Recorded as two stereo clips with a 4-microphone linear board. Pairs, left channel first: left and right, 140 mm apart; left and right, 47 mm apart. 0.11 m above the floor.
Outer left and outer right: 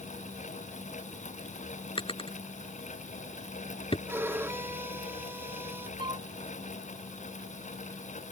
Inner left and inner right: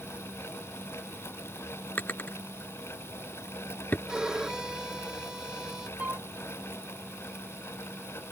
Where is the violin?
15° right (ahead or behind).